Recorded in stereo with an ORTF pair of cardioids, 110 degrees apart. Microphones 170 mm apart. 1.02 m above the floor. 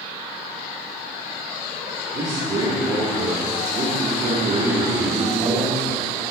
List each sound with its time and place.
2.1 s a man speaking: 40° right, 3 m